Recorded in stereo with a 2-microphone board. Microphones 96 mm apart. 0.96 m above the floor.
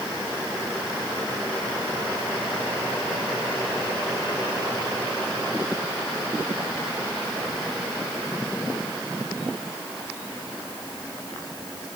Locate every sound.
Only background noise.